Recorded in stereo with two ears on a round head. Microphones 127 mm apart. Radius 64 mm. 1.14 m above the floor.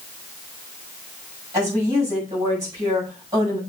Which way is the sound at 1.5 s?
25° right (ahead or behind).